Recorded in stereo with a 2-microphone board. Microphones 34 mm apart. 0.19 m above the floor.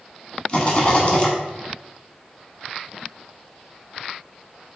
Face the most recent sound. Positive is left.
turn(degrees=30)  # may be behind; listen again after turning